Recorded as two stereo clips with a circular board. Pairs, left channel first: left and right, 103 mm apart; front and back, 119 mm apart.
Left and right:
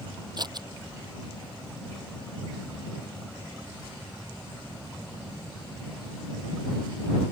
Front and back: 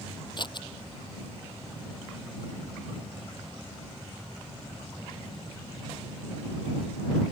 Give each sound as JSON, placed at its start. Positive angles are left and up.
{"t": 0.4, "sound": "scissors", "azimuth_deg": -45}